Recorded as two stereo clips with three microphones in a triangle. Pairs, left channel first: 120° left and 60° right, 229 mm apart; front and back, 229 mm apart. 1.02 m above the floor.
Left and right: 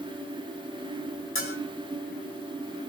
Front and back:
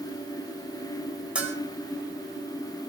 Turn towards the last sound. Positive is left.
turn(degrees=95)